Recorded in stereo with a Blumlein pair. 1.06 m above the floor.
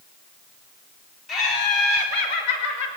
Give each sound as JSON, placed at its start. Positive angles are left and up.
{"t": 1.3, "sound": "laughter", "azimuth_deg": 25, "distance_m": 3.5}